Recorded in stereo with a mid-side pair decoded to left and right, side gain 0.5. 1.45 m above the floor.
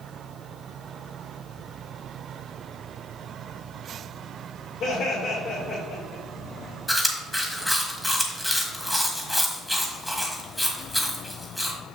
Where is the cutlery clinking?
I don't hear cutlery clinking.